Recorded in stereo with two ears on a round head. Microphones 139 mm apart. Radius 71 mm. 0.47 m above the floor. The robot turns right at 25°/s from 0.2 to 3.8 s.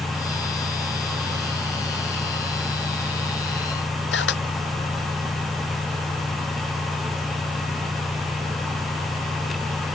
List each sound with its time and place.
4.1 s a camera shutter: 80° left